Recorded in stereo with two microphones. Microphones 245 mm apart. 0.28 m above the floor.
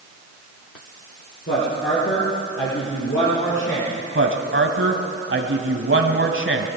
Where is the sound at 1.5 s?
55° left (ahead or behind), 5 m.